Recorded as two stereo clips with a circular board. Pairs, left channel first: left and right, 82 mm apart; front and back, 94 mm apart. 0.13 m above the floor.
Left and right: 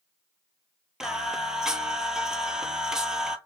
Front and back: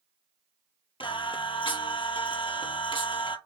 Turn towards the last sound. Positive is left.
turn(degrees=-10)